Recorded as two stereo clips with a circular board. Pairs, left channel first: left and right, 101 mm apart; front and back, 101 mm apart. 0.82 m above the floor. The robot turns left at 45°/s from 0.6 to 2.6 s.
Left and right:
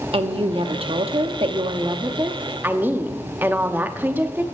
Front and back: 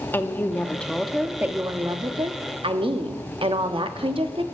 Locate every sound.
0.1 s a woman speaking: 70° right, 1.0 m; by 4.4 s 160° right, 1.0 m